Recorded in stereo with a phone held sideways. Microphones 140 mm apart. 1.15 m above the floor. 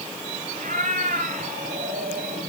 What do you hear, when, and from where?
0.6 s a cat meowing: 70° right (ahead or behind), 4.5 m